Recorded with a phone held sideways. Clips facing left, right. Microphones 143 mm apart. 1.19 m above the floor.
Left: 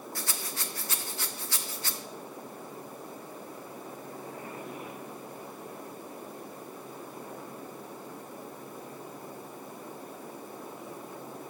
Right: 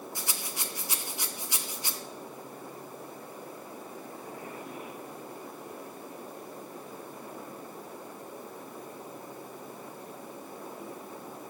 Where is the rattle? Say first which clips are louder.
Left 1 dB; 15° right (ahead or behind), 0.6 m.